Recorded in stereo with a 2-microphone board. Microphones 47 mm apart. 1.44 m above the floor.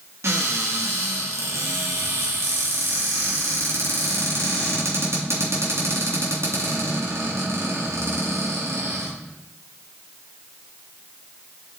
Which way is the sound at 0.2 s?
65° right (ahead or behind).